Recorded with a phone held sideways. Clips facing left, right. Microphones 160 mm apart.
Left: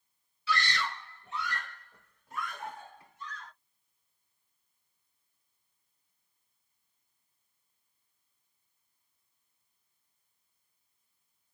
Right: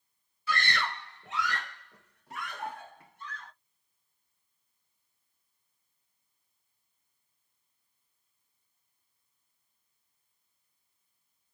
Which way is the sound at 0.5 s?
45° right (ahead or behind).